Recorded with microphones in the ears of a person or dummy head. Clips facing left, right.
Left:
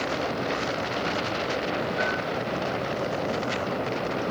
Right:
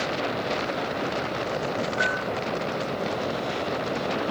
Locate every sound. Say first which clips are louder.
2.0 s a bell: left 1 dB; 5° left (ahead or behind), 9 m